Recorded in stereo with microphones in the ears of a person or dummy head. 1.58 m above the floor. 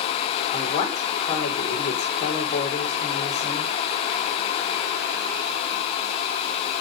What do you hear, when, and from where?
0.5 s a woman speaking: 35° left (ahead or behind), 5.5 m